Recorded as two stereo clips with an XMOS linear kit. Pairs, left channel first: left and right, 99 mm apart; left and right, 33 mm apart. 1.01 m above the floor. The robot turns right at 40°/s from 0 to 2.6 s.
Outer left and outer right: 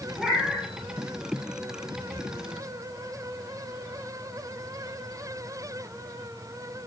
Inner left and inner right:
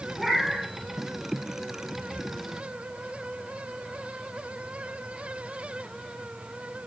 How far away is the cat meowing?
About 2 m.